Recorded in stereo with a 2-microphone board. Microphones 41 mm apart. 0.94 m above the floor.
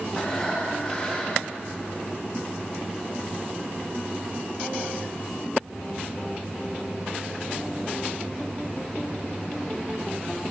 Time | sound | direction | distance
0.1 | breathing | 25° left (ahead or behind) | 1.1 m